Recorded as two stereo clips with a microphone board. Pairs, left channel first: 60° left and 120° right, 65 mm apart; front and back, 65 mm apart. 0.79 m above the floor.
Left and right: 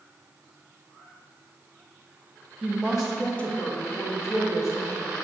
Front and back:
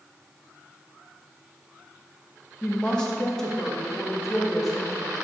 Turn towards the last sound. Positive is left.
turn(degrees=95)